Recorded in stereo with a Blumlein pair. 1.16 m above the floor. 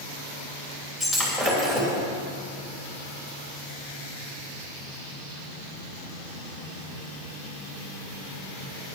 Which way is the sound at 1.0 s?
10° right.